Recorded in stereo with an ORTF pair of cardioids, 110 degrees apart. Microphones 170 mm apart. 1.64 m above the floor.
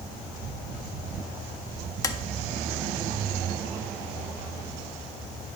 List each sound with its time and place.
2.0 s tapping: 20° left, 0.5 m